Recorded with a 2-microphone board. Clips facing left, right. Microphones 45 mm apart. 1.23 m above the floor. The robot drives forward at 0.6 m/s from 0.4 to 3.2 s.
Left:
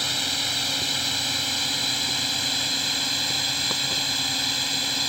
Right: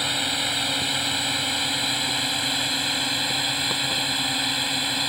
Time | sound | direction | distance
0.0 | a drone | 15° right (ahead or behind) | ?